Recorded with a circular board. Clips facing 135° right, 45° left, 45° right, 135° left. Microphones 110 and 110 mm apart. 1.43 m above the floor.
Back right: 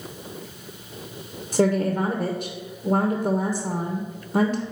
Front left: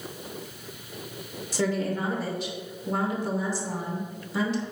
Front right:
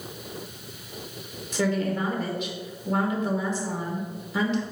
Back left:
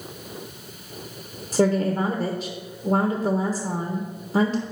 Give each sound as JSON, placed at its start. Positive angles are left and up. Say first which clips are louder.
{"t": 1.5, "sound": "a woman speaking", "louder": "back right 6 dB, back left 5 dB", "azimuth_deg": 180, "distance_m": 0.9}